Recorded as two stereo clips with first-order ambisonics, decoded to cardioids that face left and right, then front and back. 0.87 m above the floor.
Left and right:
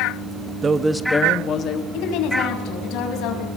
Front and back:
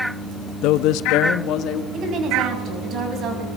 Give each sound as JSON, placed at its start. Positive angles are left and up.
{"t": 0.6, "sound": "a man speaking", "azimuth_deg": -25, "distance_m": 1.3}
{"t": 1.9, "sound": "a woman speaking", "azimuth_deg": 125, "distance_m": 6.0}